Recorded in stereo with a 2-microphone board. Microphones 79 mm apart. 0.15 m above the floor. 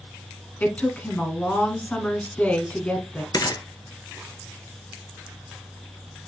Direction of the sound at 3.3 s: 55° left (ahead or behind).